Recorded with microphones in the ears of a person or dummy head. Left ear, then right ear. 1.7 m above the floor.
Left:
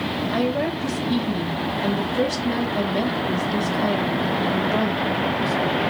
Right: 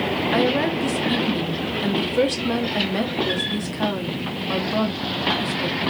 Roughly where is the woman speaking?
Right.